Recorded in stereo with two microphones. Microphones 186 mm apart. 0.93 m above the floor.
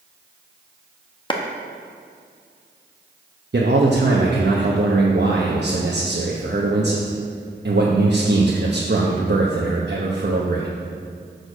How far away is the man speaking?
About 0.9 m.